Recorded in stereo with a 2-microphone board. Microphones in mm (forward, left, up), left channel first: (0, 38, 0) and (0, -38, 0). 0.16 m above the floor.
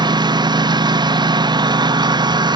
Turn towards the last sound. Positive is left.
turn(degrees=-65)  # may be behind; listen again after turning